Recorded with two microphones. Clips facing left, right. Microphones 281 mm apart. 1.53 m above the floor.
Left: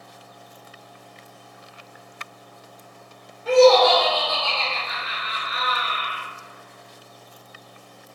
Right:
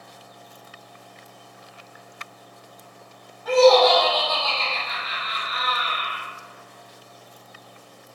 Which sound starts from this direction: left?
Laughter, at 3.5 s.